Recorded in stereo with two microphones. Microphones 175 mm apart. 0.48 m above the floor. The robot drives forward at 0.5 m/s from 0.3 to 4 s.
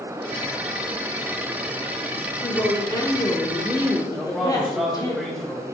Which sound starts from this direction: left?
A woman speaking, at 2.4 s.